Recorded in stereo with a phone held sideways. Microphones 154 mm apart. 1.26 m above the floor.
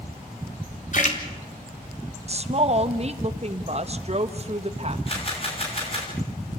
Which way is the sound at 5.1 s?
40° left (ahead or behind).